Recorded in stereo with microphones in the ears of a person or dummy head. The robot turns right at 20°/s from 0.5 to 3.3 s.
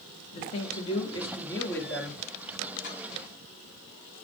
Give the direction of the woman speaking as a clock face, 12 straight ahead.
7 o'clock.